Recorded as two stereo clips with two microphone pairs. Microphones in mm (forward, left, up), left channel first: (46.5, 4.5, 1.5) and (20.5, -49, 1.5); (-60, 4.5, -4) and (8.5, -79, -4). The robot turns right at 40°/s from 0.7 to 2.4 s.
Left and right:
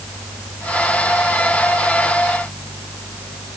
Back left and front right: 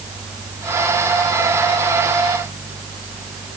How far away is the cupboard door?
No cupboard door in this recording.